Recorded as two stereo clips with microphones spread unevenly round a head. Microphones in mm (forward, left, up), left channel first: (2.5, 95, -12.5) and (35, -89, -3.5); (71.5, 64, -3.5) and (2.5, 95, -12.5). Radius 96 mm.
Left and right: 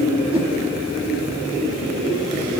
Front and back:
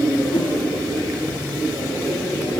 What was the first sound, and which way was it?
A whoosh, 15° right.